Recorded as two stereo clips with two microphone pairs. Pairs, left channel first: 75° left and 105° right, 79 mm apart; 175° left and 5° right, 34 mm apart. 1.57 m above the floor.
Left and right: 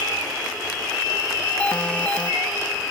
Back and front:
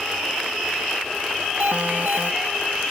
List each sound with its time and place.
1.6 s an alarm: straight ahead